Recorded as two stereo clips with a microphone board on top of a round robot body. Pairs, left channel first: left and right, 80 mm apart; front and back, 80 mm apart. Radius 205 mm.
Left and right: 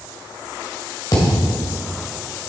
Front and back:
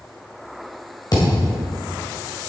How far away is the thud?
About 1.8 m.